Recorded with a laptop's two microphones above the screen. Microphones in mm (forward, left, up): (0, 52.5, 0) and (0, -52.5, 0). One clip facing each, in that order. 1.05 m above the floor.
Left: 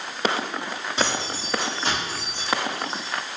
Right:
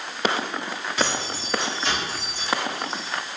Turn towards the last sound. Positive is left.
turn(degrees=70)  # may be behind; listen again after turning